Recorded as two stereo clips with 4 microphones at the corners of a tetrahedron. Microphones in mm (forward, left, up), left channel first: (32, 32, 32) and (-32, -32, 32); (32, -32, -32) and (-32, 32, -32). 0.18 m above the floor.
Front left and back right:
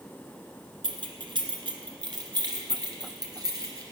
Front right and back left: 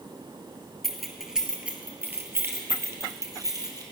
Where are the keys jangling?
130° right, 1.6 m; by 3.8 s straight behind, 2.5 m.